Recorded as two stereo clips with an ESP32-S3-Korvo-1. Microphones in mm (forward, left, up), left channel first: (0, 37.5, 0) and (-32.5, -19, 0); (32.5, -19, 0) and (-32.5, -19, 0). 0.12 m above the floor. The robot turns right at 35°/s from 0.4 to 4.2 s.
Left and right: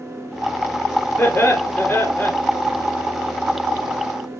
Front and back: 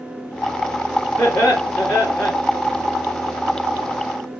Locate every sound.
1.2 s laughter: 5° left, 1.9 m; by 2.3 s 45° left, 1.9 m